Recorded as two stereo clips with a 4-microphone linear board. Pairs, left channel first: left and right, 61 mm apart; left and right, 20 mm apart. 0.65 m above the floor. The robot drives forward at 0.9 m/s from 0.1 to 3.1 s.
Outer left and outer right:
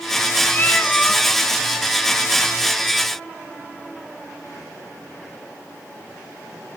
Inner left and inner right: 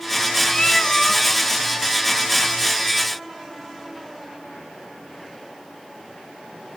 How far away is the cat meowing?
About 0.7 m.